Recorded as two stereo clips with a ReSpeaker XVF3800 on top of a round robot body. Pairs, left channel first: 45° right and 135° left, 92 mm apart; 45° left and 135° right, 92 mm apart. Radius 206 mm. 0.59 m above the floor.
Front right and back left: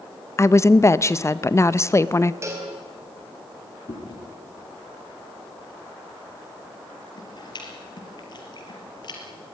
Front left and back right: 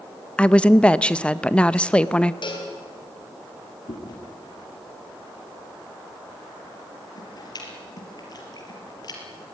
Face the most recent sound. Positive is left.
turn(degrees=0)